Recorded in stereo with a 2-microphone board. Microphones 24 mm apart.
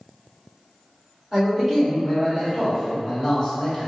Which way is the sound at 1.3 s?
30° right (ahead or behind).